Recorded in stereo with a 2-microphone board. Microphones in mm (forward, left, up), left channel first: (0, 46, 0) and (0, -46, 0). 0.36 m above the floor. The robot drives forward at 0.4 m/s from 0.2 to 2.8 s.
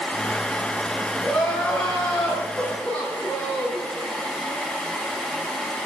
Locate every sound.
1.2 s crying: 10° left (ahead or behind), 4 m; by 3.8 s 15° left (ahead or behind), 3.5 m